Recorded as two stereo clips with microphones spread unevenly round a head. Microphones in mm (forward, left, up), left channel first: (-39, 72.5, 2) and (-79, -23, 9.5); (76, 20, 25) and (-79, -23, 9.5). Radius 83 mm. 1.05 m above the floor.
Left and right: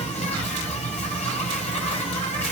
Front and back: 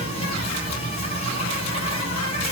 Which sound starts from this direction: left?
An insect, at 0.0 s.